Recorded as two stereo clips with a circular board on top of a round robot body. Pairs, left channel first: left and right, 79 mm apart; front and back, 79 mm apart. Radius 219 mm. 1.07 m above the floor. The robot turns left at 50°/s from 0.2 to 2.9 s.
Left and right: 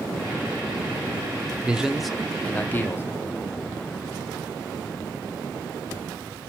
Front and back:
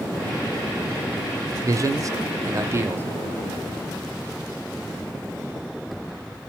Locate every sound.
1.6 s a man speaking: 160° right, 0.6 m; by 3.1 s 135° left, 0.6 m